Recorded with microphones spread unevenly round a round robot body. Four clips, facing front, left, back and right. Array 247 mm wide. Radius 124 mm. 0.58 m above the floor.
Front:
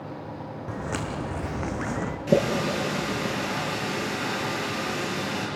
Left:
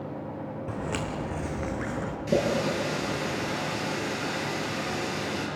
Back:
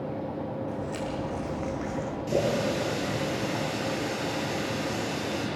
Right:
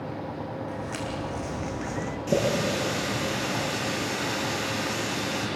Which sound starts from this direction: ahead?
A running tap, at 2.3 s.